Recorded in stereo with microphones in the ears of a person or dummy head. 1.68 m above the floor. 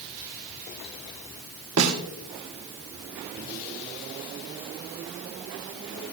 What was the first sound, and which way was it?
A snare drum, 80° right.